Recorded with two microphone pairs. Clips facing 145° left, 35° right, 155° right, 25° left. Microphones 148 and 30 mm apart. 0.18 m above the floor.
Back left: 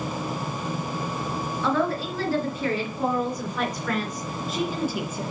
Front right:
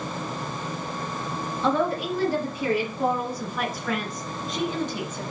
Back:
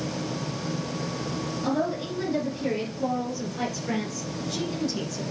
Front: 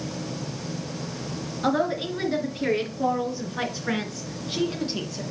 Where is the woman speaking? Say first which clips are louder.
Front right 1 dB, front 4 dB; 35° left, 3.5 m; by 5.2 s 70° left, 2.5 m.